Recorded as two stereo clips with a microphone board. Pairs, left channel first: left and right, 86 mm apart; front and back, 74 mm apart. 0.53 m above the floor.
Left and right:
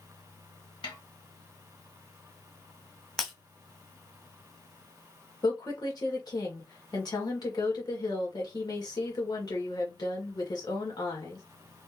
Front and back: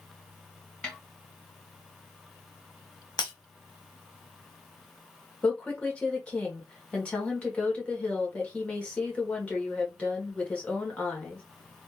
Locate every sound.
0.8 s a snare drum: 80° left, 1.4 m
3.2 s breaking glass: straight ahead, 1.3 m
5.4 s a woman speaking: 70° left, 1.7 m